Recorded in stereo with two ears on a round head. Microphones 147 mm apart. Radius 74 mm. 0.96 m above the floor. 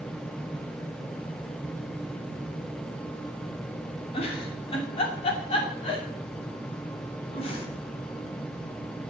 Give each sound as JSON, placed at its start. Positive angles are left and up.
{"t": 4.1, "sound": "a giggle", "side_deg": 35, "distance_m": 3.0}